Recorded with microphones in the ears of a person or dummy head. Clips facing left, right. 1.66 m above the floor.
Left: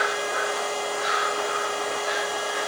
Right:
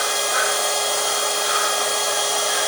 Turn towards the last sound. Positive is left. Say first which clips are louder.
# right 2 dB
turn(degrees=-50)  # may be behind; listen again after turning